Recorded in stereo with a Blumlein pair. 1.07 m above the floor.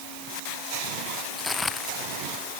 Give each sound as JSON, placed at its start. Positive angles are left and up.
{"t": 1.4, "sound": "footsteps", "azimuth_deg": 10}